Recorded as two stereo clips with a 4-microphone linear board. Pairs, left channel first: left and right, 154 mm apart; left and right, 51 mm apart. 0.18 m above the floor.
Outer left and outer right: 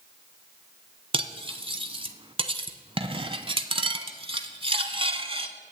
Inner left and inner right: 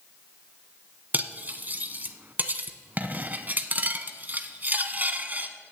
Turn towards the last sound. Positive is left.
turn(degrees=-35)  # may be behind; listen again after turning